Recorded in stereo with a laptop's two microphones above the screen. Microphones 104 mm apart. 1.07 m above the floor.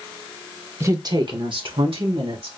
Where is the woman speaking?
25° right (ahead or behind), 0.9 m; by 2.5 s 70° right (ahead or behind), 2.5 m.